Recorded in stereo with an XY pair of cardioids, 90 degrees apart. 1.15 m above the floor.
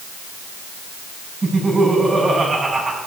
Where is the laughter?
30° right, 8.5 m.